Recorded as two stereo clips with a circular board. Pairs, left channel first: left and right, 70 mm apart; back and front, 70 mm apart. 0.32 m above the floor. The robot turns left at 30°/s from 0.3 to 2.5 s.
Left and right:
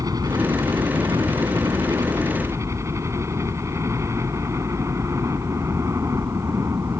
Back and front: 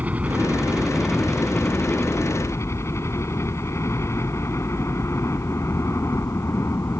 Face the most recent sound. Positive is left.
turn(degrees=-135)